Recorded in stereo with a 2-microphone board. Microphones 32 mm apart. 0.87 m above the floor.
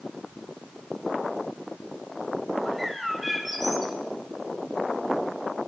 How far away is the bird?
About 1.7 m.